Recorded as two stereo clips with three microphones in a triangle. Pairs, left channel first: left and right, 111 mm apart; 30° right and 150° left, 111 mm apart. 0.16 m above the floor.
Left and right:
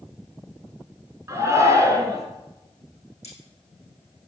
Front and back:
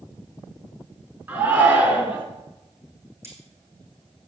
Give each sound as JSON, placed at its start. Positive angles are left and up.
{"t": 1.3, "sound": "a shout", "azimuth_deg": -140, "distance_m": 2.5}
{"t": 3.2, "sound": "cutlery clinking", "azimuth_deg": 80, "distance_m": 4.5}